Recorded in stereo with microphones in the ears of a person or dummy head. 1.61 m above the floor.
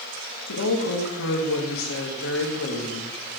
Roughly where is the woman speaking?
Left.